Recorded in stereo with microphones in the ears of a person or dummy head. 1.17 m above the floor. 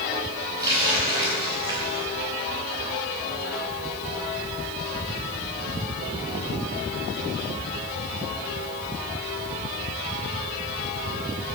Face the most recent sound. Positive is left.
turn(degrees=-20)  # may be behind; listen again after turning